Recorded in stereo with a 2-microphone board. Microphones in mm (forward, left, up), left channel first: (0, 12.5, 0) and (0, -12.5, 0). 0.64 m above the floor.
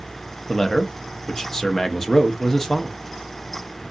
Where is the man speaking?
20° left (ahead or behind), 0.5 m.